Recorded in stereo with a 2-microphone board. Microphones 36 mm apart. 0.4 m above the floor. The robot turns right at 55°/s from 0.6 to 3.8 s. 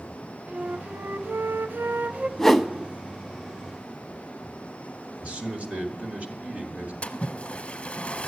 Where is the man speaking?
40° right (ahead or behind), 1.6 m.